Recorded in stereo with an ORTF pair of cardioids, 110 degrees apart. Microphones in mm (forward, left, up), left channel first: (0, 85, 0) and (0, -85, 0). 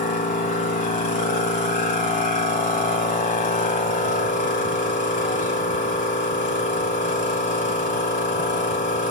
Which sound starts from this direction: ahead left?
A machine running, at 0.0 s.